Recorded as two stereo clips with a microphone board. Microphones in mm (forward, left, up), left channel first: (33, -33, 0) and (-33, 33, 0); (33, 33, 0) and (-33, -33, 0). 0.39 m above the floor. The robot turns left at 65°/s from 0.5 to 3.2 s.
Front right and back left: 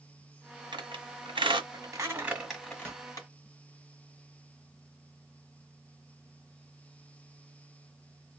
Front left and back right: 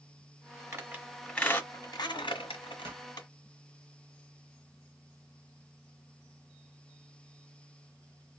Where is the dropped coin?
I don't hear a dropped coin.